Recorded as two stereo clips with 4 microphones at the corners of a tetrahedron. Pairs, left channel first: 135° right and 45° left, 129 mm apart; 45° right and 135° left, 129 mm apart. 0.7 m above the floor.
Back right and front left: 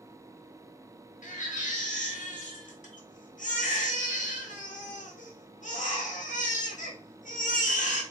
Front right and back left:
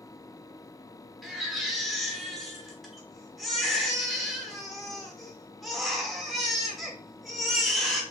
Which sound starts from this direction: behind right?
A baby crying, at 1.2 s.